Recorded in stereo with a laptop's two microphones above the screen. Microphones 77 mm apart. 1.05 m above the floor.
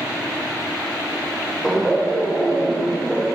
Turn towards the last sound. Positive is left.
turn(degrees=0)  # may be behind; listen again after turning